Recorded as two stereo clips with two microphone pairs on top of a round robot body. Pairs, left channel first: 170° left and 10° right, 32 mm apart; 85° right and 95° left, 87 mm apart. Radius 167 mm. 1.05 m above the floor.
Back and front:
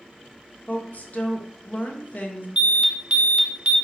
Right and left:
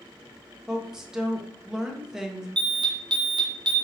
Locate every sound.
0.7 s a woman speaking: straight behind, 1.0 m
2.6 s an alarm: 60° left, 0.7 m